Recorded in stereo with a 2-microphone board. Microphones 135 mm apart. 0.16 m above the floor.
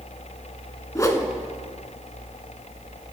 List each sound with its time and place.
0.9 s a whoosh: 25° left (ahead or behind), 1.1 m